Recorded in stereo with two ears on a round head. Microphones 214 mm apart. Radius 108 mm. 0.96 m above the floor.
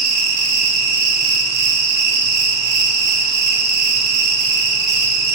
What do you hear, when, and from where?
0.0 s an insect: 75° right (ahead or behind), 1.7 m